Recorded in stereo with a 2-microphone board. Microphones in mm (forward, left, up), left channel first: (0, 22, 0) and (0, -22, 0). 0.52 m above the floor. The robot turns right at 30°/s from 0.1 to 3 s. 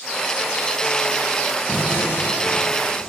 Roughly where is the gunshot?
Ahead left.